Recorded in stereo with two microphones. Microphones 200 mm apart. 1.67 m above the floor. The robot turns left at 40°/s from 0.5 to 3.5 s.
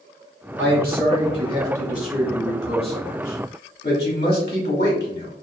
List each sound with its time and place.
0.6 s a man speaking: 120° right, 1.0 m; by 5.3 s 125° left, 1.0 m